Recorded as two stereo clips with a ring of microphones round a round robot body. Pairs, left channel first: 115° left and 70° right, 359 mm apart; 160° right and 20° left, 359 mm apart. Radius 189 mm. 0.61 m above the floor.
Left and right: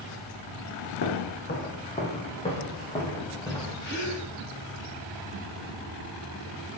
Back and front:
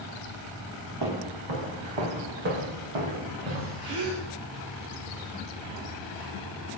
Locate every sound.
1.0 s footsteps: 50° left, 2.5 m; by 3.9 s 30° left, 4.5 m
3.8 s a gasp: 50° left, 3.5 m